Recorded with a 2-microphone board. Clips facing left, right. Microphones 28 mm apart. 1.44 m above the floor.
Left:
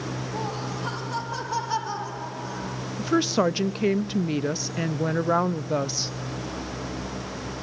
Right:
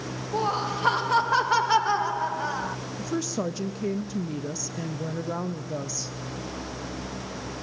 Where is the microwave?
No microwave in this recording.